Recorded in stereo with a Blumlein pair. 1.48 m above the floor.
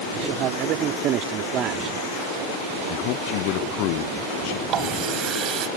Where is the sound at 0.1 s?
35° right; by 2.0 s 30° right.